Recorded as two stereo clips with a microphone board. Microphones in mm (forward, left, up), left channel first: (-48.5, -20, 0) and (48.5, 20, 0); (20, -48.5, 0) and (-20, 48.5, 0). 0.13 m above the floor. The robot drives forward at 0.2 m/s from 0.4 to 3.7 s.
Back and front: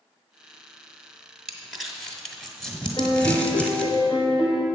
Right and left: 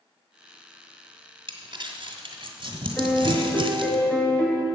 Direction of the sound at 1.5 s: 105° left.